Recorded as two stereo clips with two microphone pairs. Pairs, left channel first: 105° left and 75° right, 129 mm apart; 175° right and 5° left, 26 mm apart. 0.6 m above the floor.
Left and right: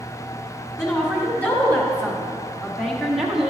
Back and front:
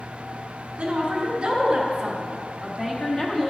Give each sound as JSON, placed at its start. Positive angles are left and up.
{"t": 0.8, "sound": "a woman speaking", "azimuth_deg": 35, "distance_m": 1.7}